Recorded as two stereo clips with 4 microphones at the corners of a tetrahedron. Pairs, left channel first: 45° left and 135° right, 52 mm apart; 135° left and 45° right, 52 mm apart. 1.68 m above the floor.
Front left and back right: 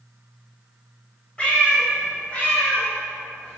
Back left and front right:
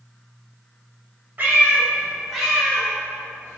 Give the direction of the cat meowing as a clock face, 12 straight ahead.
12 o'clock.